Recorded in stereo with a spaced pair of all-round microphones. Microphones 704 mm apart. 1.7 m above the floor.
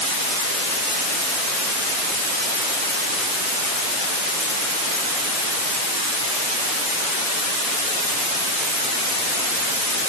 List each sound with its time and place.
Only background noise.